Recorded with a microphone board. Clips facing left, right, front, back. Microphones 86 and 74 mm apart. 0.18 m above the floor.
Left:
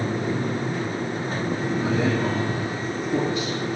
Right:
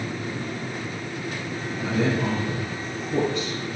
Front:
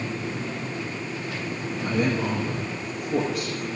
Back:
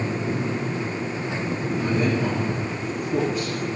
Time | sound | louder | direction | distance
1.8 | a man speaking | right 1 dB, even | 5° left | 6.5 m